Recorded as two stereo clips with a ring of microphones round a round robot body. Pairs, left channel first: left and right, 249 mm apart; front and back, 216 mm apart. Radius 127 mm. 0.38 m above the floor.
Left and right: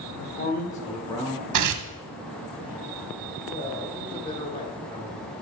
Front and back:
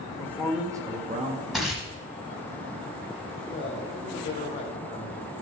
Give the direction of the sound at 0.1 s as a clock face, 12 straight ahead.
10 o'clock.